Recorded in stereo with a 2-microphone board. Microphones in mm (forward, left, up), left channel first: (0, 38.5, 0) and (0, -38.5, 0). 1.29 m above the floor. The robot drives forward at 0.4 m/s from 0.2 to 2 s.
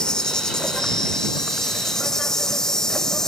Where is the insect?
10° left (ahead or behind), 1.1 m; by 3.3 s 5° left (ahead or behind), 1.7 m.